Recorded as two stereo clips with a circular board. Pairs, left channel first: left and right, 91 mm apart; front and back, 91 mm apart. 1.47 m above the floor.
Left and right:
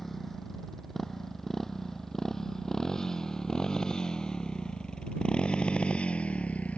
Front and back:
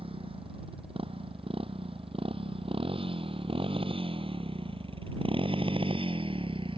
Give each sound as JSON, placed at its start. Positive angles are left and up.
{"t": 0.0, "sound": "a motorcycle", "azimuth_deg": 175}